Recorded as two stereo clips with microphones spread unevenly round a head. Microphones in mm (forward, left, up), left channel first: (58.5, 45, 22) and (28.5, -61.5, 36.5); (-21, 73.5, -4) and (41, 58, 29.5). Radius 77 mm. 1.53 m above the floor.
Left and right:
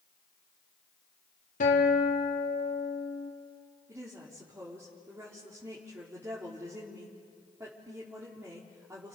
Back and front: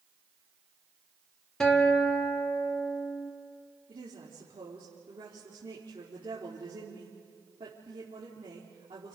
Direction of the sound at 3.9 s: 40° right.